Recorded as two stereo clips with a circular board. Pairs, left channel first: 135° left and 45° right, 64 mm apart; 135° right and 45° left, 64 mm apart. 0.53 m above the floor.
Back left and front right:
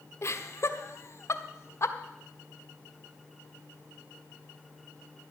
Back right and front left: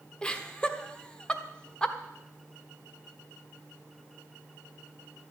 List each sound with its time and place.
0.2 s laughter: 155° left, 1.2 m